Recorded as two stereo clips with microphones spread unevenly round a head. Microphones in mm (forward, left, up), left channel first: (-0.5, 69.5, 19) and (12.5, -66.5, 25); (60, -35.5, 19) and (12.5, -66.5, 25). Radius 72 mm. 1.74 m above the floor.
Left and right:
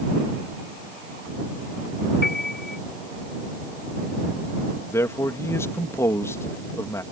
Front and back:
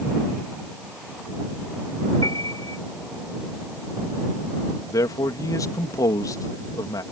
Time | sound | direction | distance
2.2 | a piano | 85° left | ?
4.9 | a man speaking | 25° left | ?